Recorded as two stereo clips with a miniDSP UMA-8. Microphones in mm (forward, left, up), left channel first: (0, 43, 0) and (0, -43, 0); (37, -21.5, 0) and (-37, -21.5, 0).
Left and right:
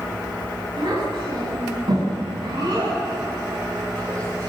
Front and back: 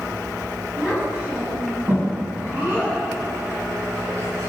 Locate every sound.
0.8 s a child speaking: 105° right, 9.5 m; by 4.5 s 135° right, 9.5 m